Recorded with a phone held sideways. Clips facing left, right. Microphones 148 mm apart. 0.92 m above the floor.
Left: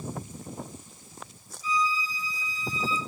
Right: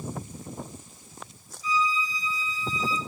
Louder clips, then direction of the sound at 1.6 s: Right 1 dB; 40° right (ahead or behind).